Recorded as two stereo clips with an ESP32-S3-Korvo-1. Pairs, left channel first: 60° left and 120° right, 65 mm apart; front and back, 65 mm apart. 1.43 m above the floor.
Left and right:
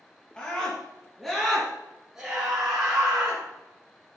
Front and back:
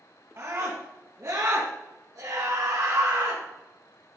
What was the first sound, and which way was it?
A scream, 135° left.